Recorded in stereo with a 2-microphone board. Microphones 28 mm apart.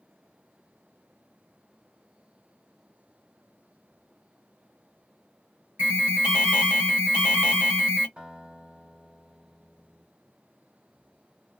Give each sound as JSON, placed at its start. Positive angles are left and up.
{"t": 5.8, "sound": "an alarm", "side_deg": -70, "distance_m": 1.5}
{"t": 8.2, "sound": "a guitar", "side_deg": -55, "distance_m": 1.8}